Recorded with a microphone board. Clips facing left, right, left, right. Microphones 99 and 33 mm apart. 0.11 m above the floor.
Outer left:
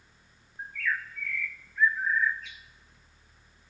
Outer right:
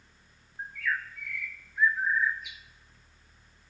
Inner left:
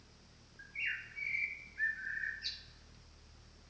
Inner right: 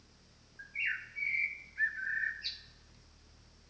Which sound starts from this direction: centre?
A bird, at 0.6 s.